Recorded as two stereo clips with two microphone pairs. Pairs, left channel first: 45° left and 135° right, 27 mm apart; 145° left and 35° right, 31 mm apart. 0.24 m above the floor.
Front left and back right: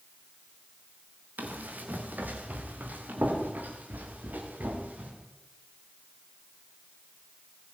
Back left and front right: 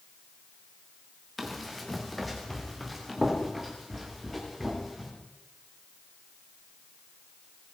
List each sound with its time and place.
1.4 s running footsteps: 130° right, 7.5 m; by 5.1 s 125° right, 9.5 m